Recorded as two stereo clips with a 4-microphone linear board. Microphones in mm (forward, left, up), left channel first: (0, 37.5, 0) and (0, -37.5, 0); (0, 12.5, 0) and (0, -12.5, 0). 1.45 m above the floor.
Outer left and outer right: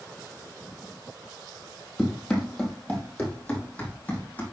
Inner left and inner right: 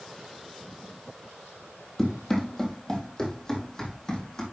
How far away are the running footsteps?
About 2.5 m.